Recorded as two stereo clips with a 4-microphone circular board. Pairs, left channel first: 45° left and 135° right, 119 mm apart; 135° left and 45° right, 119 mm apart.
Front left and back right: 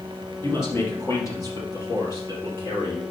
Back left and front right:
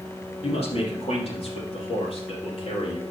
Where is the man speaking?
110° left, 3 m; by 3.0 s 100° left, 4.5 m.